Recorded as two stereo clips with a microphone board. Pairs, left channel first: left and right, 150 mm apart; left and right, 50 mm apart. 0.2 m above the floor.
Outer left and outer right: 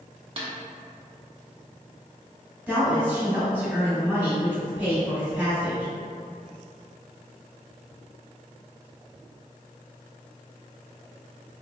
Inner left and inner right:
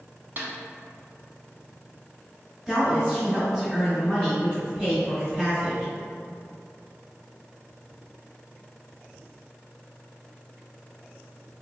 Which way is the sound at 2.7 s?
10° right (ahead or behind).